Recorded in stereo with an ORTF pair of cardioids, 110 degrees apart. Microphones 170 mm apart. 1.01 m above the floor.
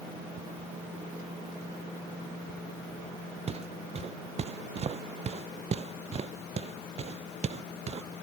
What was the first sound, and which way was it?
Footsteps, 40° right.